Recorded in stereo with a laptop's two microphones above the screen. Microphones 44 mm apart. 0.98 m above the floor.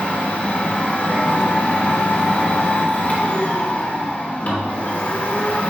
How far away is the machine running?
About 1.1 m.